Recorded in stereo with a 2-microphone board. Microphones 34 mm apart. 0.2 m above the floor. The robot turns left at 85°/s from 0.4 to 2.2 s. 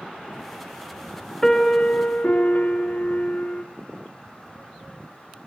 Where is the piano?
165° left, 1.2 m; by 3.6 s 100° left, 1.2 m.